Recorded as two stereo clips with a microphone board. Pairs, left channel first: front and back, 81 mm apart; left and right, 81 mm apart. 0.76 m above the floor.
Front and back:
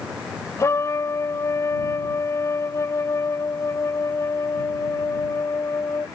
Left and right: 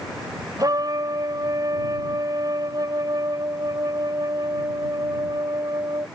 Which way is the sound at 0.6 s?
50° right.